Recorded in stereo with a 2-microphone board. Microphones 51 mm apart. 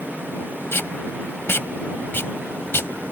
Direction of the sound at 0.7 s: 55° left (ahead or behind).